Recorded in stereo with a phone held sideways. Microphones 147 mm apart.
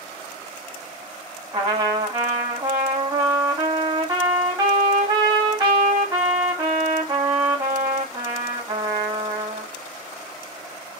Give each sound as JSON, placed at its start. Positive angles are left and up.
{"t": 1.5, "sound": "a trumpet", "side_deg": -30, "distance_m": 2.0}